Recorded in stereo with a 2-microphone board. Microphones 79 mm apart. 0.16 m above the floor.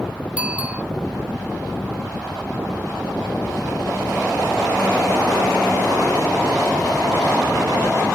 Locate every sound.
0.4 s a bicycle bell: 15° right (ahead or behind)